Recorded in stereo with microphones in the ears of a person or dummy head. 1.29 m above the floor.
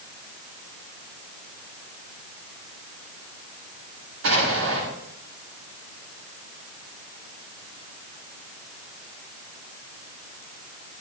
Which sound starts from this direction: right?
An explosion, at 4.2 s.